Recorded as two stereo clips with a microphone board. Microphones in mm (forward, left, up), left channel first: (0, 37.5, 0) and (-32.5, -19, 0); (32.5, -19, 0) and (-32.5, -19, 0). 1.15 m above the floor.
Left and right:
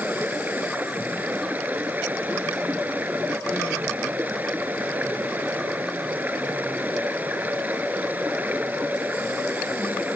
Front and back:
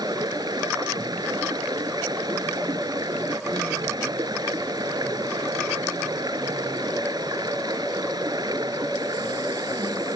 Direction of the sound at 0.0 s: 175° left.